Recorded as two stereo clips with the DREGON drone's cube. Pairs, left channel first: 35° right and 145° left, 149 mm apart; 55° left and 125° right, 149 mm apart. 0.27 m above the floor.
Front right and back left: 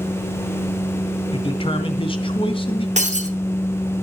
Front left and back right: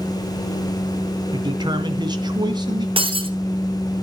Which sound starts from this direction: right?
A man speaking, at 1.3 s.